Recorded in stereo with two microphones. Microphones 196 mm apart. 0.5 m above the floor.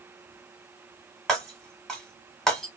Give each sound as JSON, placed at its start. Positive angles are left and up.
{"t": 1.3, "sound": "breaking glass", "side_deg": 5, "distance_m": 1.6}